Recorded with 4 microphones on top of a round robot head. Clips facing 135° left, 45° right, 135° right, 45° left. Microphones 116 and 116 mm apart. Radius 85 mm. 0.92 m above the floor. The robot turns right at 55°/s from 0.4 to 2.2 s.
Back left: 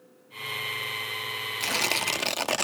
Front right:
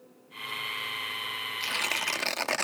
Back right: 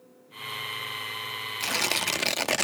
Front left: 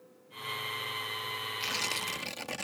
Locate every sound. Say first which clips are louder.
1.6 s tearing paper: back left 5 dB, back right 10 dB; straight behind; by 2.6 s 150° right